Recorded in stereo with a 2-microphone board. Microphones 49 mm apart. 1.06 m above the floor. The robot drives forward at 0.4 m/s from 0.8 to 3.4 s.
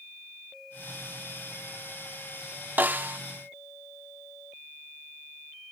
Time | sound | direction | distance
2.8 | a snare drum | 40° right (ahead or behind) | ?